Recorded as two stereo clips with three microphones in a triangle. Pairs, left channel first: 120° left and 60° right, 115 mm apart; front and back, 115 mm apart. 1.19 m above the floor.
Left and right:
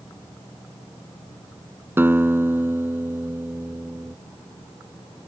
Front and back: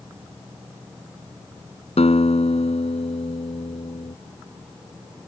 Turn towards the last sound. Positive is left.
turn(degrees=10)